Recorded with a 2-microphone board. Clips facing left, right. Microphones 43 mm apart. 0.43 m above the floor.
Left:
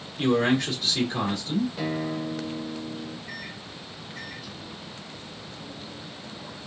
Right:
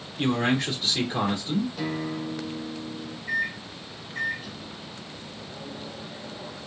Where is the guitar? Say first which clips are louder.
Left 1 dB; 15° left (ahead or behind), 1.4 m.